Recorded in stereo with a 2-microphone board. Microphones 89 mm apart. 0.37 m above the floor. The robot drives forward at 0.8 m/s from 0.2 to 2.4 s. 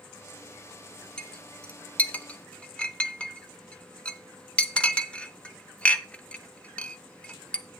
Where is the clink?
10° left (ahead or behind), 0.8 m; by 7.7 s 15° left (ahead or behind), 0.6 m.